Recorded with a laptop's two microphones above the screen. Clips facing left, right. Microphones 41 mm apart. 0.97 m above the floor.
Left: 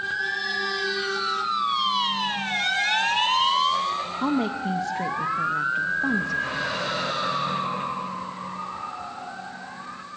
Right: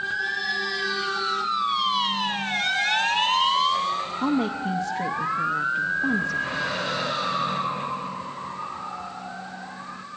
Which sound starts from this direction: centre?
A woman speaking, at 4.2 s.